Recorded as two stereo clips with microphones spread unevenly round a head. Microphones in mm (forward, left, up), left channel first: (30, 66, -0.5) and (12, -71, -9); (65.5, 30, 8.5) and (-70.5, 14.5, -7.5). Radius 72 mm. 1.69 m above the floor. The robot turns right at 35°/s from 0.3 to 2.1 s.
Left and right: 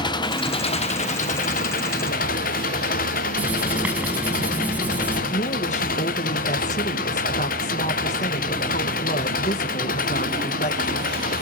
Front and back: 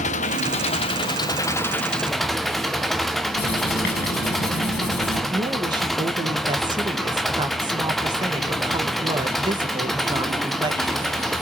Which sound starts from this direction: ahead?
Writing, at 3.4 s.